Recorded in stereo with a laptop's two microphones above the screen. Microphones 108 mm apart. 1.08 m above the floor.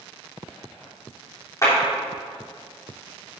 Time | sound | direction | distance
1.6 | a clap | 30° left (ahead or behind) | 2.5 m